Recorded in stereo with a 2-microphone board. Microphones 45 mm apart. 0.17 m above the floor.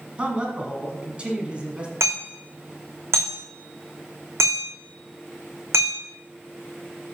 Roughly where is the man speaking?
Right.